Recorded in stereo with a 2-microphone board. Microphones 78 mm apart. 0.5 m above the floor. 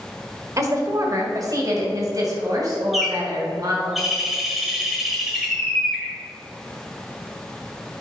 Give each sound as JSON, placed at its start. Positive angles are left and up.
{"t": 0.6, "sound": "a woman speaking", "side_deg": -40, "distance_m": 1.4}
{"t": 2.9, "sound": "a bird", "side_deg": 0, "distance_m": 1.7}